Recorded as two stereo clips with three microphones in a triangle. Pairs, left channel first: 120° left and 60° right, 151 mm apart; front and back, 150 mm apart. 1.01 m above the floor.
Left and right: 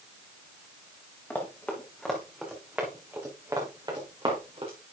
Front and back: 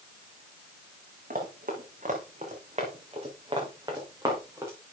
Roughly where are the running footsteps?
Behind.